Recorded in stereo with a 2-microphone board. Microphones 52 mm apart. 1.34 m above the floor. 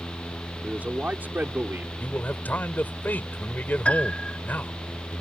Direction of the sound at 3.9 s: 25° left (ahead or behind).